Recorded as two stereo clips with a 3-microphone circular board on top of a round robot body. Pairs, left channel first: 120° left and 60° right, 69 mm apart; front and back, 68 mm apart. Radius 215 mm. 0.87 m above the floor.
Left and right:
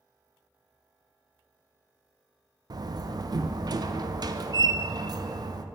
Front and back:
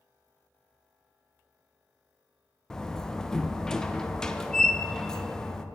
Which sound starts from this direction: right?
A door slam, at 2.7 s.